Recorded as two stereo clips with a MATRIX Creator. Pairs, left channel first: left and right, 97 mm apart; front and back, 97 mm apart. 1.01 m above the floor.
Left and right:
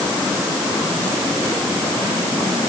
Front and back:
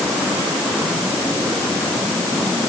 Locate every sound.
Only background noise.